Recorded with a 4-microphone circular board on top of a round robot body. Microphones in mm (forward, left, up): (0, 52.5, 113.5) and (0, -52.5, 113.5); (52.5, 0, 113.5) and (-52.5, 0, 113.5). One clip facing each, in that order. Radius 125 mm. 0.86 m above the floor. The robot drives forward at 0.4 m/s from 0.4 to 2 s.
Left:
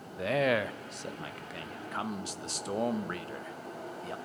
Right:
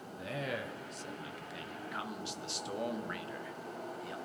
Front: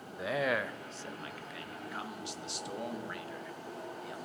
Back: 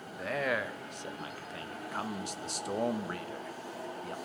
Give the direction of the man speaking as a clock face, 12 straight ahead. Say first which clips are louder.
Left 11 dB, front 1 dB; 9 o'clock.